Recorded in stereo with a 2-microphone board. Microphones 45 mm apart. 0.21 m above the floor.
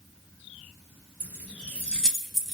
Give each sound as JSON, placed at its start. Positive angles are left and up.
{"t": 1.2, "sound": "keys jangling", "side_deg": -40, "distance_m": 0.9}